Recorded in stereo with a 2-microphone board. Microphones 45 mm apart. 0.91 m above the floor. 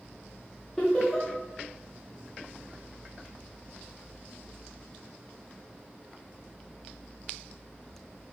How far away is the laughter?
About 0.6 m.